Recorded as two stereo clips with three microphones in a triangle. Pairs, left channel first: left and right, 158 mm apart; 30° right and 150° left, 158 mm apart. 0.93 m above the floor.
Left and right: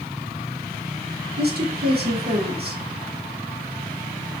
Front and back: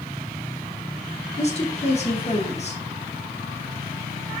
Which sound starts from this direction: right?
A woman speaking, at 1.4 s.